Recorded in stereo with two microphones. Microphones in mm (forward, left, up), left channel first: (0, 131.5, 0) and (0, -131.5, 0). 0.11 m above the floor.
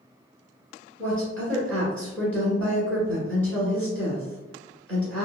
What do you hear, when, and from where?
1.0 s a woman speaking: 5° left (ahead or behind), 1.5 m